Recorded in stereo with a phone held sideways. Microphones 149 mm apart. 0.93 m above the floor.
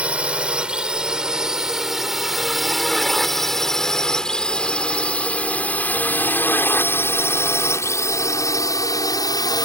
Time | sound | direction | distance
0.0 | a drone | 10° right (ahead or behind) | ?